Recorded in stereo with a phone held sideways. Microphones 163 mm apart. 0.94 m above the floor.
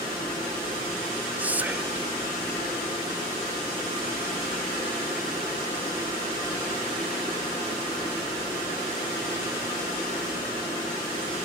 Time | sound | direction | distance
1.4 | whispering | 10° right (ahead or behind) | ?